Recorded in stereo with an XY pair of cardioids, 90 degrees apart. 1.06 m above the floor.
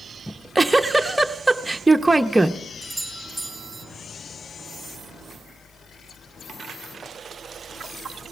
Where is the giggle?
10° right, 0.7 m.